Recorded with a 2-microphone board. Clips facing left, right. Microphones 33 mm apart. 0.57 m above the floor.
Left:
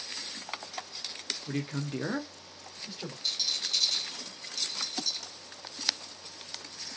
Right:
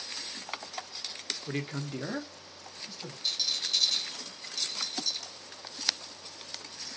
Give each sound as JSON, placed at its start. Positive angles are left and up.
{"t": 1.5, "sound": "a man speaking", "side_deg": -15, "distance_m": 0.6}
{"t": 3.2, "sound": "a rattle", "side_deg": 5, "distance_m": 1.2}